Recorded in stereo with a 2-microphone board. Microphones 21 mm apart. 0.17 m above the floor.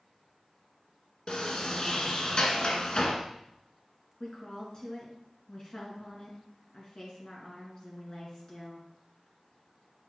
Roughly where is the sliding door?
Left.